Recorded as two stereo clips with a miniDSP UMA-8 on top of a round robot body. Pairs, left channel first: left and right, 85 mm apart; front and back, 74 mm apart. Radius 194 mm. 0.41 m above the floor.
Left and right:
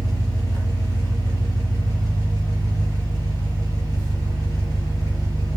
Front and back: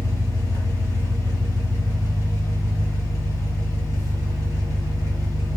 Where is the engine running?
45° left, 1.1 m.